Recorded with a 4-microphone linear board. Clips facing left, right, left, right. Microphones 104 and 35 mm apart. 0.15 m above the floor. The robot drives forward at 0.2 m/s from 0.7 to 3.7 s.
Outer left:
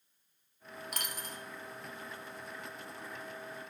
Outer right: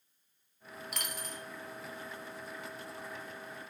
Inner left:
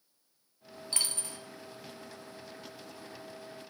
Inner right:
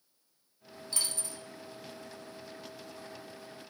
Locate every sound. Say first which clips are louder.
0.9 s a dropped coin: outer right 1 dB, inner left 2 dB; 45° left (ahead or behind), 0.7 m; by 1.4 s 40° left (ahead or behind), 0.8 m